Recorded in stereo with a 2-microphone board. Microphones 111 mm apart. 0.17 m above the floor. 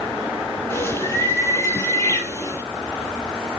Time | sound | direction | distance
0.7 | a bird | 25° left (ahead or behind) | 3.5 m